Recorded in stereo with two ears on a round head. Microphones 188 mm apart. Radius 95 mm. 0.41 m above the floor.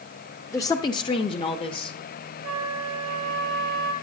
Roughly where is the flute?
Right.